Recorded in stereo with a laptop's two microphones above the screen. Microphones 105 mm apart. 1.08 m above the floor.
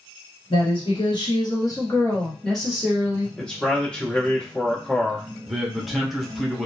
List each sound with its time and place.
0.5 s a woman speaking: 60° left (ahead or behind), 1.3 m; by 3.3 s 20° right (ahead or behind), 0.9 m
3.4 s a man speaking: 10° left (ahead or behind), 0.9 m
5.5 s a man speaking: centre (ahead or behind), 0.5 m